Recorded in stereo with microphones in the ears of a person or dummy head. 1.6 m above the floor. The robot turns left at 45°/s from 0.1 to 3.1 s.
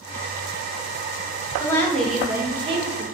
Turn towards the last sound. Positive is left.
turn(degrees=-45)